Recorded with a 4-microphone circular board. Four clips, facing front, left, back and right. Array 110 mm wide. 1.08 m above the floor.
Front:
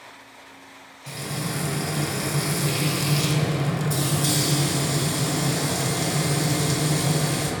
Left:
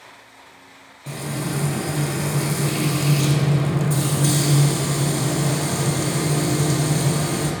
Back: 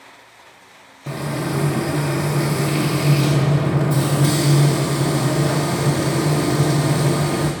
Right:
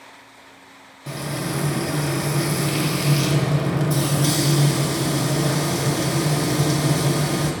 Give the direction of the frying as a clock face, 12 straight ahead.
6 o'clock.